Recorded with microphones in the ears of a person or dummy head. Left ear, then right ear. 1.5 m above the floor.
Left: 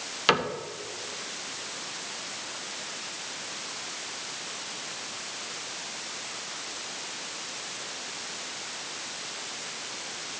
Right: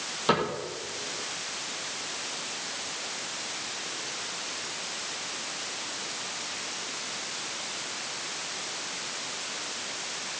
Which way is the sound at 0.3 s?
55° left (ahead or behind).